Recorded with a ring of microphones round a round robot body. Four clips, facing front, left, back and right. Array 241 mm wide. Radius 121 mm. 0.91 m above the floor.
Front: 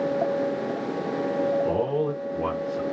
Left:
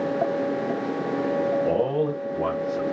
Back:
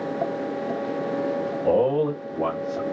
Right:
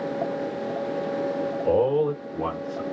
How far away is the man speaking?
About 1.8 m.